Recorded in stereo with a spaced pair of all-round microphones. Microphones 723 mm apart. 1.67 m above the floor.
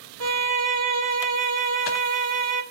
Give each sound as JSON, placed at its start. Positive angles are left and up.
{"t": 0.2, "sound": "a violin", "side_deg": -40, "distance_m": 1.0}